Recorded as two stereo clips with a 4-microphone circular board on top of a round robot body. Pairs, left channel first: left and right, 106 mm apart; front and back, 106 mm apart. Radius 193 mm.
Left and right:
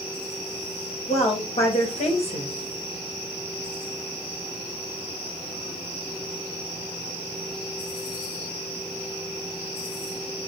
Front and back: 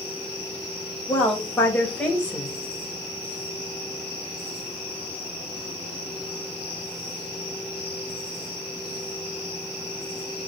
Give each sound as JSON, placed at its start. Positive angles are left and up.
{"t": 1.1, "sound": "a woman speaking", "azimuth_deg": 75, "distance_m": 4.0}